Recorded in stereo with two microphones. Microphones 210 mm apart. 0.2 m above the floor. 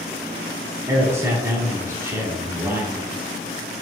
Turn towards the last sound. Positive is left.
turn(degrees=-15)  # may be behind; listen again after turning